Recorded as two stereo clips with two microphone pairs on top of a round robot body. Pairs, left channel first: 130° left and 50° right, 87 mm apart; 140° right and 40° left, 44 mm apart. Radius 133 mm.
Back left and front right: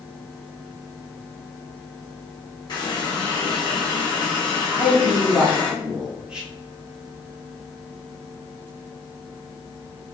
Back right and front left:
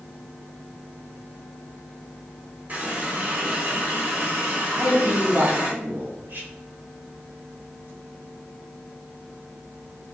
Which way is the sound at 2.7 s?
90° left.